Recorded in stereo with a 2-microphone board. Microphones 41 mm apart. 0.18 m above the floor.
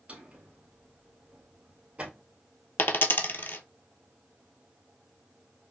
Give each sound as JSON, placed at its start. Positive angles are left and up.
{"t": 0.1, "sound": "a drawer", "side_deg": -30, "distance_m": 1.9}
{"t": 2.8, "sound": "a dropped coin", "side_deg": 55, "distance_m": 0.6}